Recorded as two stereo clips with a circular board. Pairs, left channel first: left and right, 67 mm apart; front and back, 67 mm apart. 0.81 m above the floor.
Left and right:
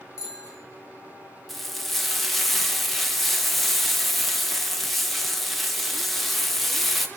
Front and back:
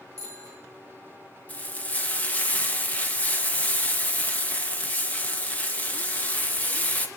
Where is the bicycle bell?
130° left, 9.5 m.